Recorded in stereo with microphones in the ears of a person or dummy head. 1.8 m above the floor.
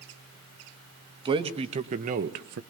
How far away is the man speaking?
About 1.8 m.